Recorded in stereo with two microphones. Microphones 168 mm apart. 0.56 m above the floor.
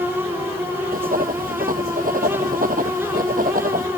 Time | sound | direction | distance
0.9 | writing | 55° right (ahead or behind) | ?